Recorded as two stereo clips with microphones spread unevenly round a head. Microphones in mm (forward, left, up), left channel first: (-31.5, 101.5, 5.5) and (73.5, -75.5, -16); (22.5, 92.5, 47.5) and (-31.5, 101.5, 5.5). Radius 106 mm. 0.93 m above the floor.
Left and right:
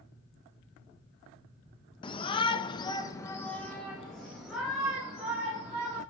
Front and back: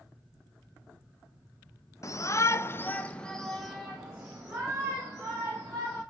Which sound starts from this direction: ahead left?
A shout, at 2.0 s.